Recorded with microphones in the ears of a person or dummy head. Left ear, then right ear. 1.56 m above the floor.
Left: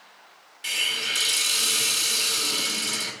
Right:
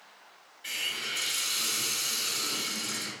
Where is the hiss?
50° left (ahead or behind), 2 m.